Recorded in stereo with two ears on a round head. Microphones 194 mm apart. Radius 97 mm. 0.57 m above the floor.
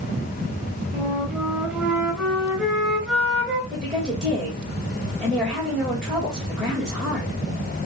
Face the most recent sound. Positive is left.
turn(degrees=5)  # may be behind; listen again after turning